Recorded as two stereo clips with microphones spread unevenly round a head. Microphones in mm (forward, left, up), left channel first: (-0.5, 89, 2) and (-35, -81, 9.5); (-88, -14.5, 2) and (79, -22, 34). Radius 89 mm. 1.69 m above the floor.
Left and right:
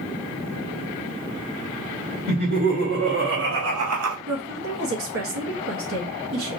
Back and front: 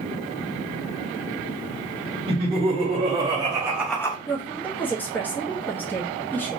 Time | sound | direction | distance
2.3 | laughter | 55° right | 1.8 m
4.3 | a woman speaking | 100° right | 1.0 m